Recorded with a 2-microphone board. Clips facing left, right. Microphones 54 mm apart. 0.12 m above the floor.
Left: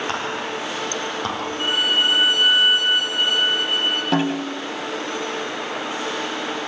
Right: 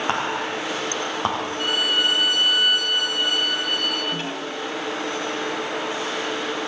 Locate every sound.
0.1 s whispering: 25° right (ahead or behind), 8 m
1.6 s a violin: 30° left (ahead or behind), 4.5 m
4.1 s a snare drum: 85° left, 8 m